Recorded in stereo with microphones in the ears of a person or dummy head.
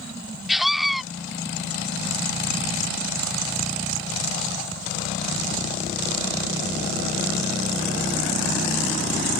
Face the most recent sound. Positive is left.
turn(degrees=0)  # may be behind; listen again after turning